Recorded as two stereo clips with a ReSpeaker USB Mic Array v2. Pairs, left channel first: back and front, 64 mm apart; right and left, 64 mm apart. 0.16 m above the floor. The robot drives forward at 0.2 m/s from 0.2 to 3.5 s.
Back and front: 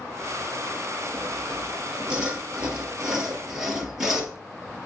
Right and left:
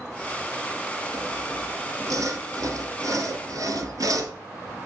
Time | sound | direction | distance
1.1 | sawing | 70° left | 2 m